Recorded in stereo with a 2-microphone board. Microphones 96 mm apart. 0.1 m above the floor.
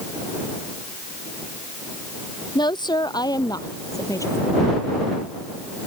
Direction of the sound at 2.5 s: 50° left (ahead or behind).